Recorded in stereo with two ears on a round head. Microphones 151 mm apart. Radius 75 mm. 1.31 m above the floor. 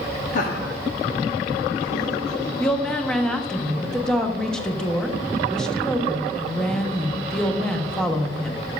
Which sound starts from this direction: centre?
A woman speaking, at 2.6 s.